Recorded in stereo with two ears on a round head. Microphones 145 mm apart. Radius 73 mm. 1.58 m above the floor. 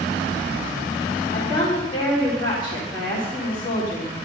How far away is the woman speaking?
About 3.5 m.